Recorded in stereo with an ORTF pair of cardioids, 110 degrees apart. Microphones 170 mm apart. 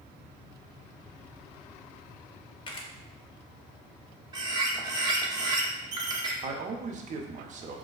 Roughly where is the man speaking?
Ahead right.